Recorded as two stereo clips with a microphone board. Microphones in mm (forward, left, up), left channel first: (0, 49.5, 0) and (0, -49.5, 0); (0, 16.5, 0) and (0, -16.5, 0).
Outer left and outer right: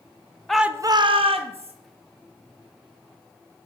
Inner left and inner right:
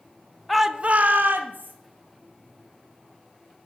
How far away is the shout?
About 0.6 m.